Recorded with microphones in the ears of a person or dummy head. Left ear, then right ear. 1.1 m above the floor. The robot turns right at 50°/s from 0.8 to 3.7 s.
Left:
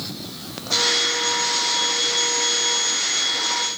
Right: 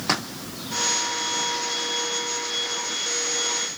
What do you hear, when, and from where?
Only background noise.